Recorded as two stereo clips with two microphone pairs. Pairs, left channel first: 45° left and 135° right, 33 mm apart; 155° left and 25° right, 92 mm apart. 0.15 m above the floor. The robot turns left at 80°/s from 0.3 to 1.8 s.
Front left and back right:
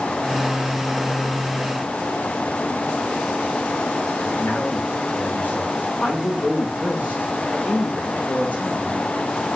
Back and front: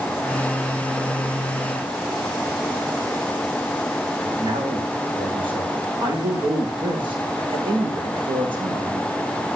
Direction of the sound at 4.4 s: Straight ahead.